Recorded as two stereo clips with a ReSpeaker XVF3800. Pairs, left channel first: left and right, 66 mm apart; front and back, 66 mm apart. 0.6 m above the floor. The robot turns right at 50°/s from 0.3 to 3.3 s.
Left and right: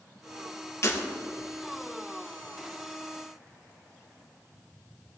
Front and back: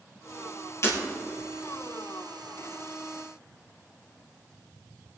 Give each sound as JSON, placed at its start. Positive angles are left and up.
{"t": 0.8, "sound": "breaking glass", "azimuth_deg": 40, "distance_m": 3.5}